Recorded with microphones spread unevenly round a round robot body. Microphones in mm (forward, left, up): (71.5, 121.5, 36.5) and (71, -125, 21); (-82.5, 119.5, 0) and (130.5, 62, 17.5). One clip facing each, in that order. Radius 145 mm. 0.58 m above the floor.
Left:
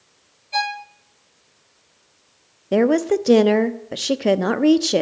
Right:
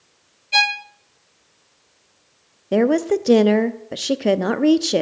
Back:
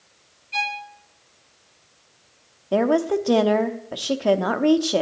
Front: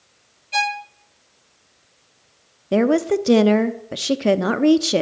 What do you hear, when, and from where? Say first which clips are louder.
0.5 s a violin: right 1 dB, front 5 dB; 45° right, 0.6 m
2.7 s a woman speaking: even, front 3 dB; 10° right, 0.6 m